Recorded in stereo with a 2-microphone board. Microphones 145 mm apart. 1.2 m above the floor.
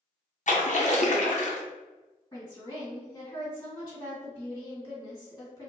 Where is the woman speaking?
30° left (ahead or behind), 1.9 m.